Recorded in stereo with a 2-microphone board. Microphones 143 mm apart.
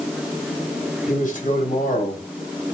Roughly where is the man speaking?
Left.